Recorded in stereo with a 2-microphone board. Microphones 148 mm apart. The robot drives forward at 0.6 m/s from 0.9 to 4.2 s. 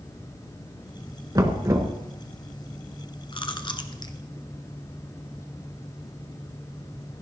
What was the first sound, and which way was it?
Knocking, 25° right (ahead or behind).